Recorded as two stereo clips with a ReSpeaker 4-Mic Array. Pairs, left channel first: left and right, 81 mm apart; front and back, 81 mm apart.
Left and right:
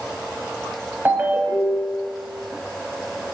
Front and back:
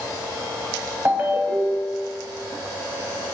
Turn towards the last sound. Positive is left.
turn(degrees=-140)